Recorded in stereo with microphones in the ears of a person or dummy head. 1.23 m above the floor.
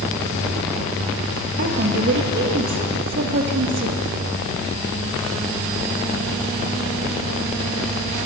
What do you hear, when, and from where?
1.6 s a woman speaking: 65° right (ahead or behind), 1.6 m